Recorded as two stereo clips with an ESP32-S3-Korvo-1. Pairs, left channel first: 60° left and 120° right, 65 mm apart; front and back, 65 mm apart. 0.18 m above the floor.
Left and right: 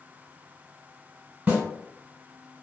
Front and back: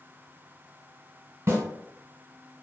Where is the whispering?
No whispering in this recording.